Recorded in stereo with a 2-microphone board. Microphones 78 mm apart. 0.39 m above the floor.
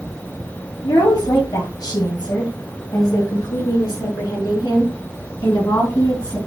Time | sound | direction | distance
0.8 | a woman speaking | 65° left (ahead or behind) | 3 m